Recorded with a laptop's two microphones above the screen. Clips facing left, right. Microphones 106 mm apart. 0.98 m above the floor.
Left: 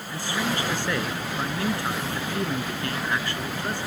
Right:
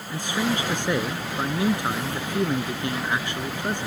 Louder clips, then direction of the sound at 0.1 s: Right 2 dB; 20° right (ahead or behind).